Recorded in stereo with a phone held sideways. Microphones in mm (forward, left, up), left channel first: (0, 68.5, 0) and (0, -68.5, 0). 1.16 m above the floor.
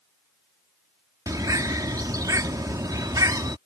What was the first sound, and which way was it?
A bird, 30° right (ahead or behind).